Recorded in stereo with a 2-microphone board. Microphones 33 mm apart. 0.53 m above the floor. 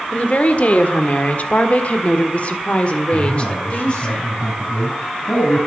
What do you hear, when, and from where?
0.1 s a woman speaking: 45° left (ahead or behind), 1.7 m; by 4.1 s 30° left (ahead or behind), 1.9 m
3.1 s a man speaking: 65° left (ahead or behind), 5 m